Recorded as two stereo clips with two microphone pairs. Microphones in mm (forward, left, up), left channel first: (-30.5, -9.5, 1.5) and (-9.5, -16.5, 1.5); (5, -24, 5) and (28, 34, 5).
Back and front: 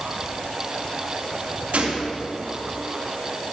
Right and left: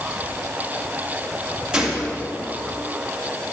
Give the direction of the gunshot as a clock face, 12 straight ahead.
12 o'clock.